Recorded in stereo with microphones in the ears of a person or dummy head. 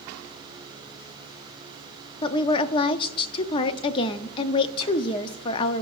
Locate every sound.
2.2 s a woman speaking: 30° left (ahead or behind), 0.6 m